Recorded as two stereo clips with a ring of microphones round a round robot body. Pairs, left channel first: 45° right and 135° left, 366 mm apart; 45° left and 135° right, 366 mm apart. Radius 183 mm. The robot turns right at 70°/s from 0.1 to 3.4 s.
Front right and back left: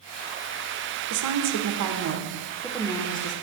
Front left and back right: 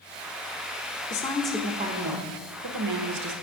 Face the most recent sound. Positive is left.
turn(degrees=-90)